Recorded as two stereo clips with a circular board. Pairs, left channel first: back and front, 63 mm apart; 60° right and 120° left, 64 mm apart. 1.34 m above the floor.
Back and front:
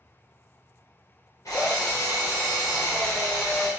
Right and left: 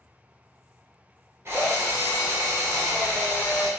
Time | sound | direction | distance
1.4 | a drill | 165° left | 0.8 m